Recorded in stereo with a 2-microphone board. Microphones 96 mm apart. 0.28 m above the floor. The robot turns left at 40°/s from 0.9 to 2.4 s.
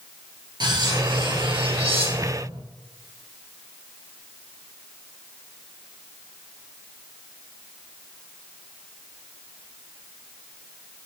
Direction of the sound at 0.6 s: 50° right.